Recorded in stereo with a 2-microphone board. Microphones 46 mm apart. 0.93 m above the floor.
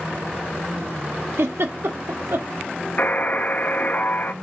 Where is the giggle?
70° right (ahead or behind), 1.3 m.